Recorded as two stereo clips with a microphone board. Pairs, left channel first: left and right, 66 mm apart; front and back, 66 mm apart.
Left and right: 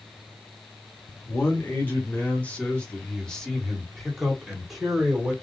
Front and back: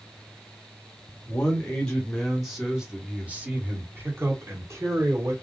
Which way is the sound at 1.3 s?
55° left.